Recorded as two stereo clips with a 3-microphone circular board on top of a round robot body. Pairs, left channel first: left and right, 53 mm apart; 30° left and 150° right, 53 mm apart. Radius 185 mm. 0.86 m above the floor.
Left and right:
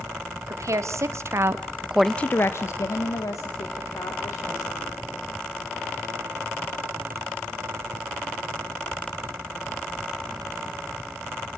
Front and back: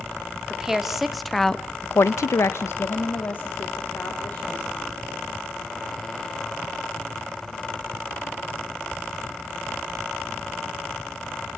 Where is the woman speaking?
70° right, 2.5 m; by 4.9 s 90° left, 4.5 m.